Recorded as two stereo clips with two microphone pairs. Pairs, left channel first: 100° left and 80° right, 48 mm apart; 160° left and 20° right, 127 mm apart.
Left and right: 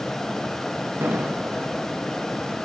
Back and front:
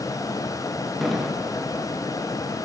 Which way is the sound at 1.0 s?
110° right.